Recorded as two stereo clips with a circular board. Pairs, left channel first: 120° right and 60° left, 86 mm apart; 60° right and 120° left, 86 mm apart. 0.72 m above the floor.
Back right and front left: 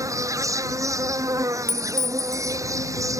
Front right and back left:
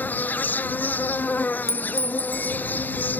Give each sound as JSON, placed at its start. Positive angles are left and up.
{"t": 0.0, "sound": "an insect", "azimuth_deg": 10}
{"t": 1.7, "sound": "a clink", "azimuth_deg": -5}